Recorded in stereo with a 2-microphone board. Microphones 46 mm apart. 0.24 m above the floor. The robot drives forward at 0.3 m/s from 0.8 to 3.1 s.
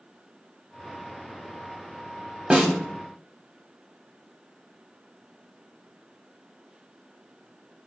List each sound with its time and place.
2.5 s a snare drum: 25° right (ahead or behind), 0.6 m